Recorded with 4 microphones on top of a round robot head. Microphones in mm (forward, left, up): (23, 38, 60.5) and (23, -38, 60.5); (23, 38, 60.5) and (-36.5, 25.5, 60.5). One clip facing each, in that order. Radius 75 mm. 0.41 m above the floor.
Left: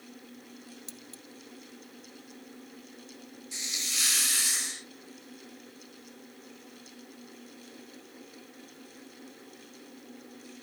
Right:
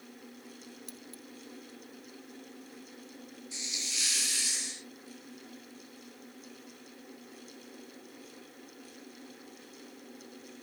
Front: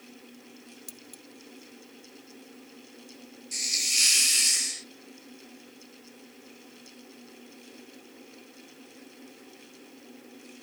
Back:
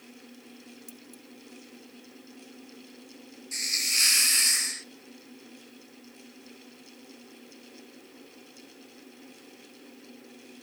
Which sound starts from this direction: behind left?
A hiss, at 3.5 s.